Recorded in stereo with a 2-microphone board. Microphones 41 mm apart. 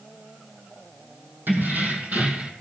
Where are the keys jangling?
55° right (ahead or behind), 2.5 m; by 2.5 s 30° right (ahead or behind), 2 m.